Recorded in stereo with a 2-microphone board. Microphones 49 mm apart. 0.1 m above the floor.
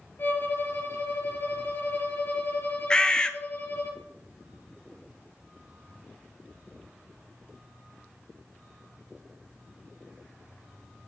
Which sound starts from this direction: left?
A violin, at 0.2 s.